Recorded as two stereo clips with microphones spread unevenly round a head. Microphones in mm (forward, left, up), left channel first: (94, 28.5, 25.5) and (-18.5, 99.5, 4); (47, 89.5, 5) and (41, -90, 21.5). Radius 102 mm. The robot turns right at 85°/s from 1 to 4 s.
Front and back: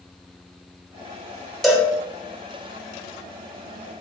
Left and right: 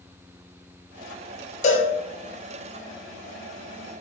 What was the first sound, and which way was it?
A cowbell, 45° left.